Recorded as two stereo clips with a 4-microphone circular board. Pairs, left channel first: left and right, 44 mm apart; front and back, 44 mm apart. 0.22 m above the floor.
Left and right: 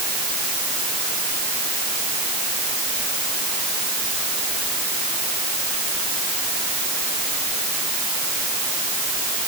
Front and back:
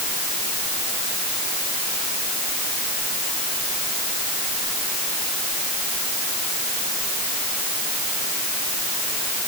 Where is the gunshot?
No gunshot in this recording.